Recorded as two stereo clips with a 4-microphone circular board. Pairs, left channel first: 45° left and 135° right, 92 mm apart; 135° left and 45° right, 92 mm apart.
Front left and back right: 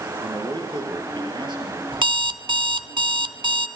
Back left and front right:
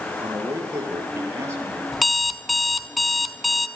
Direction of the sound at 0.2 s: 105° right.